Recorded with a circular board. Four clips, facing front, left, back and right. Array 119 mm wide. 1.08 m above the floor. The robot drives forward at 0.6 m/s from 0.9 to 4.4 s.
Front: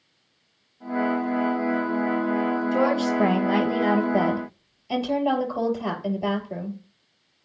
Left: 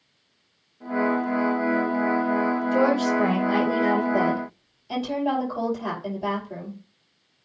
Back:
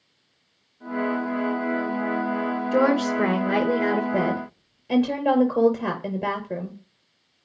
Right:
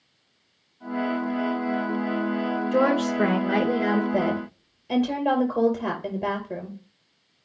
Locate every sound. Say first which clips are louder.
2.7 s a woman speaking: even, back 3 dB; 150° right, 4.5 m; by 6.8 s 155° right, 5.5 m